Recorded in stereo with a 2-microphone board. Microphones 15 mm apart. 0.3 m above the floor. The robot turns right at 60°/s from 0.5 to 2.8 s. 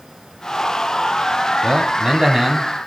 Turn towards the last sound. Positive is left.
turn(degrees=-15)